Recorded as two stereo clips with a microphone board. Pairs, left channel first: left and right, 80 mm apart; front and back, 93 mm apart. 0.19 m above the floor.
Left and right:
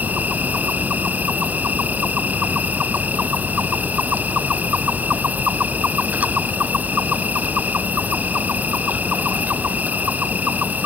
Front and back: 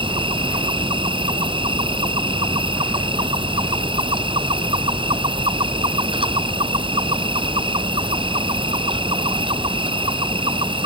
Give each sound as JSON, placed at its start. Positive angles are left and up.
{"t": 0.0, "sound": "an insect", "azimuth_deg": -160}